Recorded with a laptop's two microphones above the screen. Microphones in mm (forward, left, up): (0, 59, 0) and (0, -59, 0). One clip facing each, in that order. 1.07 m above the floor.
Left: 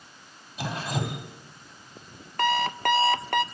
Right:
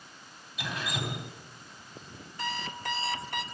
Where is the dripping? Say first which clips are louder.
Left 5 dB; 35° left (ahead or behind), 3 m.